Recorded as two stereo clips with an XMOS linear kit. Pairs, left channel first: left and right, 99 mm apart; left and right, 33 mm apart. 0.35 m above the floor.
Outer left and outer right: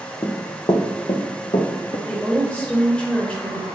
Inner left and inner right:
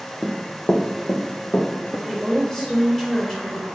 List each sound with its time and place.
0.2 s running footsteps: 30° left (ahead or behind), 0.7 m; by 2.0 s 80° left, 1.5 m
2.1 s a woman speaking: 15° left (ahead or behind), 1.0 m